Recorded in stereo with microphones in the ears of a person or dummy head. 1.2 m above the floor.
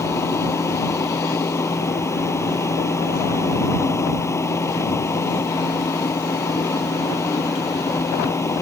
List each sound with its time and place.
0.0 s a machine running: 10° left (ahead or behind)